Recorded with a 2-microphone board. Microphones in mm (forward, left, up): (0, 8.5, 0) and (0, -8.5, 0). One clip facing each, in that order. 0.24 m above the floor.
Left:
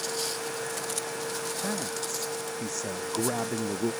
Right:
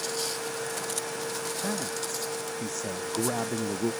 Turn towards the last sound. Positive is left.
turn(degrees=20)  # may be behind; listen again after turning